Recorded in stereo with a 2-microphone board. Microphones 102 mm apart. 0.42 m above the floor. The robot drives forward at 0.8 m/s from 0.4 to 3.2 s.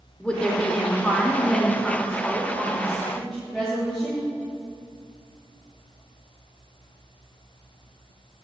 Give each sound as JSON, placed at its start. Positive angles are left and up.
{"t": 0.2, "sound": "a woman speaking", "side_deg": 10, "distance_m": 1.2}